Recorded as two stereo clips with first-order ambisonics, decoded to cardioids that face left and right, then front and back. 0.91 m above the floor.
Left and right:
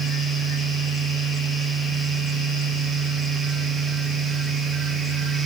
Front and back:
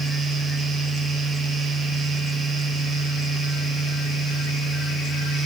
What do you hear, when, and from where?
Only background noise.